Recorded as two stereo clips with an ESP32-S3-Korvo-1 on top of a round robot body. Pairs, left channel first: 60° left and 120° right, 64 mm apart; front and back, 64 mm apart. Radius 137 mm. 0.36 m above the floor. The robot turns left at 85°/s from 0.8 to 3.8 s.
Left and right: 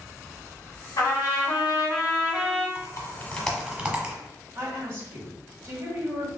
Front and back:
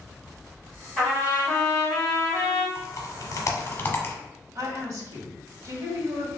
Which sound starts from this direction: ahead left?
Typing on a keyboard, at 2.8 s.